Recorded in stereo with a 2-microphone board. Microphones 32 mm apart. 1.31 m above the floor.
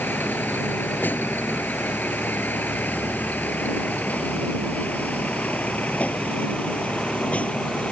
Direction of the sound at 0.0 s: 90° left.